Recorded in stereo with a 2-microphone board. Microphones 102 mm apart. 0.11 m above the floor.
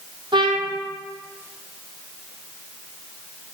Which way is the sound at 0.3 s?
50° right (ahead or behind).